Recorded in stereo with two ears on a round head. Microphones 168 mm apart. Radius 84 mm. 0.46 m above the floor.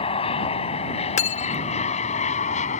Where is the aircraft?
30° left (ahead or behind); by 2.8 s 40° left (ahead or behind).